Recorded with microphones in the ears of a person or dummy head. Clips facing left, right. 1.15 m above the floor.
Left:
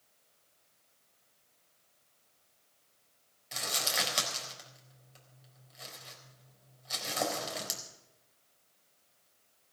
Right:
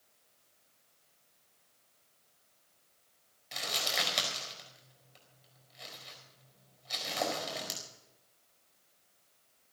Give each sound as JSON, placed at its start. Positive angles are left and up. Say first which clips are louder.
{"t": 3.5, "sound": "crumpling", "louder": "even", "side_deg": 10, "distance_m": 4.5}